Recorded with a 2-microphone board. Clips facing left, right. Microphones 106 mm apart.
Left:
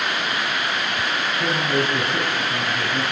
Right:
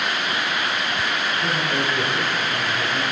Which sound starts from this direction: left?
A man speaking, at 1.4 s.